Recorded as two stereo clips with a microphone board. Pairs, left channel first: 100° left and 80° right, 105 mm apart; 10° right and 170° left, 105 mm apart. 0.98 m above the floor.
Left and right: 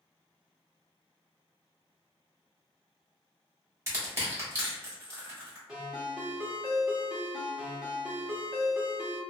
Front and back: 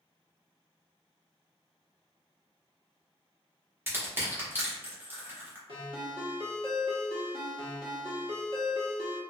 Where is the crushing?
130° right, 1.0 m.